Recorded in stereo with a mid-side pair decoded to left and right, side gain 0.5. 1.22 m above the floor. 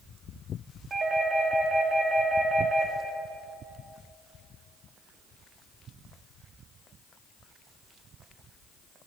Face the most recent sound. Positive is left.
turn(degrees=-40)